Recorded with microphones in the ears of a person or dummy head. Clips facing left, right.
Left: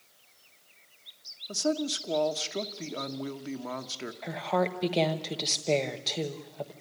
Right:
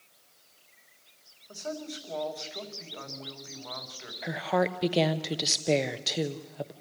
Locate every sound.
1.5 s a man speaking: 50° left (ahead or behind), 1.4 m
4.2 s a woman speaking: 10° right (ahead or behind), 1.0 m